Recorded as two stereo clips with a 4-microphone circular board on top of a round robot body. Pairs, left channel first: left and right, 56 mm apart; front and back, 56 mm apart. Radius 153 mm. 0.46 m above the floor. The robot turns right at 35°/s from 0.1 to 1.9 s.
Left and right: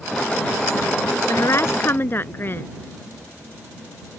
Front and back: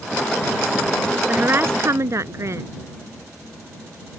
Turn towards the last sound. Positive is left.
turn(degrees=140)